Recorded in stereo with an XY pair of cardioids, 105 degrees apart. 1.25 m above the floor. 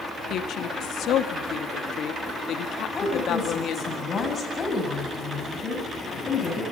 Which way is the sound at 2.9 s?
40° left.